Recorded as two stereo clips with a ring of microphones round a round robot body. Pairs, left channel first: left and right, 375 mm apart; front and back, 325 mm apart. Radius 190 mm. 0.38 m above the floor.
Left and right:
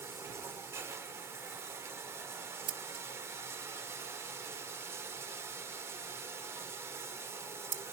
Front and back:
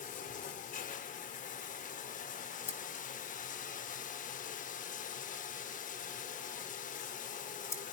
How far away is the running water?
About 0.7 m.